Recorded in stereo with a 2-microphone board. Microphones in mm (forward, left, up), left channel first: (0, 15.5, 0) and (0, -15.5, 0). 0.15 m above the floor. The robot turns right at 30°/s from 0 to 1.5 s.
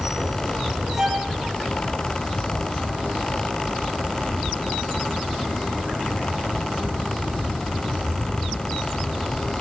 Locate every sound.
1.0 s a violin: 10° right (ahead or behind), 8 m; by 1.3 s 20° right (ahead or behind), 8 m